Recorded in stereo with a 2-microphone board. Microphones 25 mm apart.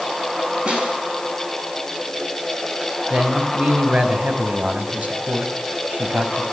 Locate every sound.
0.7 s a snare drum: 40° right (ahead or behind), 6 m
3.1 s a man speaking: 85° right, 5 m